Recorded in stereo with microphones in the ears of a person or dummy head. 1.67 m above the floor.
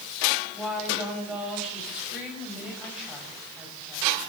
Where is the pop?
I don't hear a pop.